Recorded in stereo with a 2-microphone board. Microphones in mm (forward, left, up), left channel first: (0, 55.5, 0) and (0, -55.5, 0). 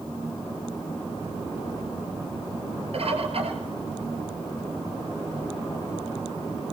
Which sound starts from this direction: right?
A bird, at 2.9 s.